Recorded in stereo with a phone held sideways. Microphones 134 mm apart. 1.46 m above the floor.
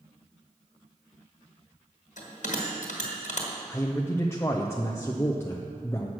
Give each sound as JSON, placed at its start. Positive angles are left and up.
{"t": 2.2, "sound": "a bell", "side_deg": 65, "distance_m": 1.7}
{"t": 3.7, "sound": "a man speaking", "side_deg": 20, "distance_m": 0.5}